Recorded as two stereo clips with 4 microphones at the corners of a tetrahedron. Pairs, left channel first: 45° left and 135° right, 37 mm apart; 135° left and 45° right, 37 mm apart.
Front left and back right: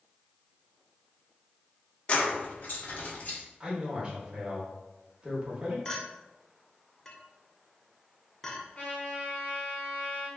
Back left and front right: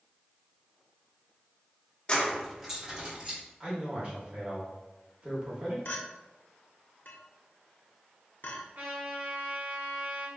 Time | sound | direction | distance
2.1 | keys jangling | 85° left | 0.6 m
3.6 | a man speaking | 90° right | 1.1 m
5.8 | a clink | 115° left | 0.6 m
8.8 | a trumpet | 5° right | 1.6 m